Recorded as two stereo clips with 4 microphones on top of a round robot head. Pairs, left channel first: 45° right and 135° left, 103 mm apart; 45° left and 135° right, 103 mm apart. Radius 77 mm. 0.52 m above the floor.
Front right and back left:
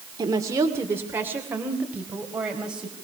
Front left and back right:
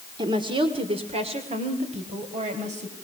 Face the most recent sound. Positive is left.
turn(degrees=-140)